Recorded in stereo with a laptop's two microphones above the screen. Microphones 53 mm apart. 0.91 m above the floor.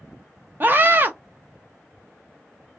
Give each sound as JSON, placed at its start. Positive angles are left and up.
{"t": 0.6, "sound": "a scream", "side_deg": -40, "distance_m": 0.6}